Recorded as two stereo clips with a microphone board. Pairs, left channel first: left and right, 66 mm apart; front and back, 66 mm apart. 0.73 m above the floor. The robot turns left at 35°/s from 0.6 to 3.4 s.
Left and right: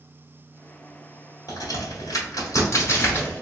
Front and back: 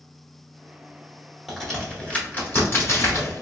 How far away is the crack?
About 1.7 m.